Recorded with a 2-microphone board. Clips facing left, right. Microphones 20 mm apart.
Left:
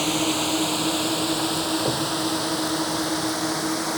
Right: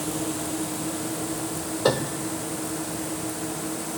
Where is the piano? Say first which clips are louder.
Even; 80° right.